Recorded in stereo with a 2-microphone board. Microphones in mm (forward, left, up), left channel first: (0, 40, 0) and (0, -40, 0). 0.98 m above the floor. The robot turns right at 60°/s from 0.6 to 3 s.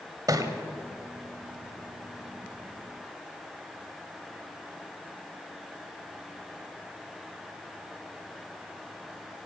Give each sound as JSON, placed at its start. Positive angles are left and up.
{"t": 0.3, "sound": "a thud", "side_deg": -50, "distance_m": 1.8}